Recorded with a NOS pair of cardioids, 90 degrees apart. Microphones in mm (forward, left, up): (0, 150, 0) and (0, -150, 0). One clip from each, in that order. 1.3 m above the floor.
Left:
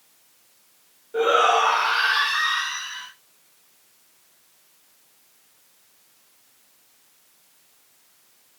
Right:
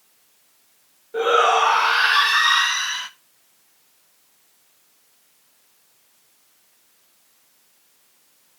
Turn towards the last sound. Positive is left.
turn(degrees=-80)